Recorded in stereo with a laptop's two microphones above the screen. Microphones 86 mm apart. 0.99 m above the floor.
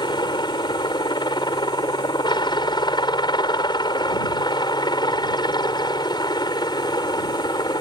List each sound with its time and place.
0.0 s a helicopter: 60° left (ahead or behind); by 7.8 s 55° left (ahead or behind)